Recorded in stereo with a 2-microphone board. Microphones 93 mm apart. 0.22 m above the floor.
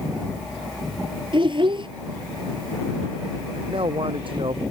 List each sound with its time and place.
1.3 s a child speaking: 60° right (ahead or behind)
3.7 s a man speaking: 65° right (ahead or behind)